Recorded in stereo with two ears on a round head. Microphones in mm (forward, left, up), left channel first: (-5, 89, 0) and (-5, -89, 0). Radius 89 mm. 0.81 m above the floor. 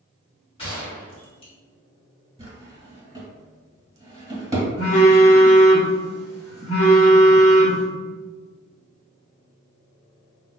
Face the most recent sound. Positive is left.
turn(degrees=35)  # may be behind; listen again after turning